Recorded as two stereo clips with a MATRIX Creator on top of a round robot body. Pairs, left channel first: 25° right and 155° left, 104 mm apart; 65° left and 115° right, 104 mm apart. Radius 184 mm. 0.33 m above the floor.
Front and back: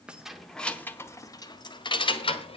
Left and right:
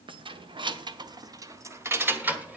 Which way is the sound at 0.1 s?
125° right.